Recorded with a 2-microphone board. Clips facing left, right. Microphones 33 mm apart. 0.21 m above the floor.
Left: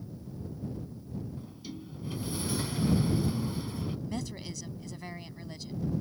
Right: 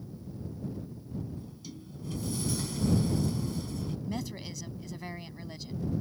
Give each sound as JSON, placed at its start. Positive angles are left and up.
{"t": 1.4, "sound": "a sliding door", "side_deg": 25}
{"t": 4.1, "sound": "a woman speaking", "side_deg": -5}